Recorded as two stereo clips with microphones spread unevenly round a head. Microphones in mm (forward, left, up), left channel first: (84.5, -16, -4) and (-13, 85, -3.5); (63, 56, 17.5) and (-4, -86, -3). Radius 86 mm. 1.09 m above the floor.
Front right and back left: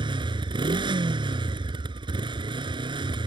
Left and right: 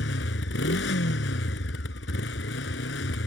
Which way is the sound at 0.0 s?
80° left.